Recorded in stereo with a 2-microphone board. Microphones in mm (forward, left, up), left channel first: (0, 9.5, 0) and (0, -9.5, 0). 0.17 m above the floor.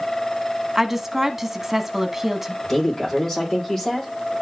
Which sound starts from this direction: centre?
A woman speaking, at 0.8 s.